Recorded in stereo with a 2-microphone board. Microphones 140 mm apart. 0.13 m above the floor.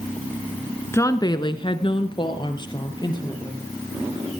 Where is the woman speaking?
20° left (ahead or behind), 1.2 m; by 3.6 s 30° left (ahead or behind), 3.5 m.